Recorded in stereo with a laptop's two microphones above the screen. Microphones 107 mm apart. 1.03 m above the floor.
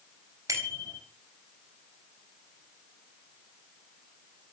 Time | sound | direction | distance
0.5 | a bicycle bell | 35° right (ahead or behind) | 4 m